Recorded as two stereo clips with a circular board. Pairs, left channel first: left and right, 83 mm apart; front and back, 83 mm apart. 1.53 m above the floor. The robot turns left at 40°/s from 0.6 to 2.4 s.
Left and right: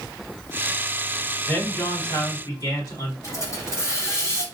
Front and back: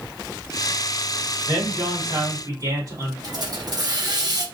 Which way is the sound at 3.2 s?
145° left.